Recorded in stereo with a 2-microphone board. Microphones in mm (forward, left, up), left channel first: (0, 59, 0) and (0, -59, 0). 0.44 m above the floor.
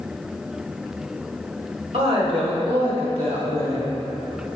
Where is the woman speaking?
55° right (ahead or behind), 2 m; by 3.9 s 60° right (ahead or behind), 3 m.